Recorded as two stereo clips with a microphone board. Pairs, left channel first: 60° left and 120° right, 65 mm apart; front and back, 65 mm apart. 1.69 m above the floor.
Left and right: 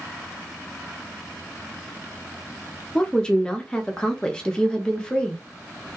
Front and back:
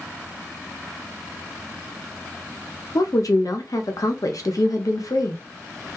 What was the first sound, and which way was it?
A woman speaking, 15° right.